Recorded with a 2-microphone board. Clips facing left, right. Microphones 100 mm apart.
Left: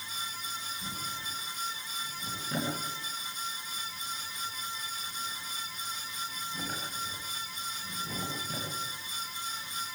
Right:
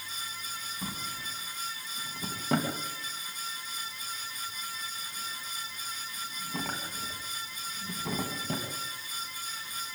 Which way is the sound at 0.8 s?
80° right.